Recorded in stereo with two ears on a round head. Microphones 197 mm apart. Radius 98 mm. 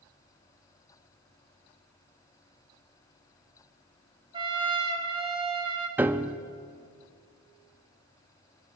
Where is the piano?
10° right (ahead or behind), 0.6 m.